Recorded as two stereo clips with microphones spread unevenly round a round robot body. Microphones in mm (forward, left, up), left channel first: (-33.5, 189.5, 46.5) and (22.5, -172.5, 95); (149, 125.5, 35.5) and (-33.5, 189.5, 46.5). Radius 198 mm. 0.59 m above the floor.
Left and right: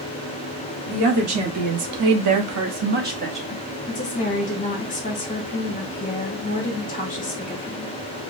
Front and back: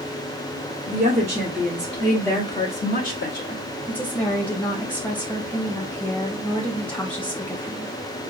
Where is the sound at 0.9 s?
130° right, 1.8 m; by 3.6 s straight ahead, 1.5 m.